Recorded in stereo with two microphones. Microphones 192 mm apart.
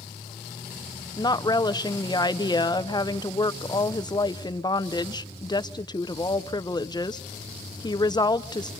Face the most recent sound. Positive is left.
turn(degrees=20)  # may be behind; listen again after turning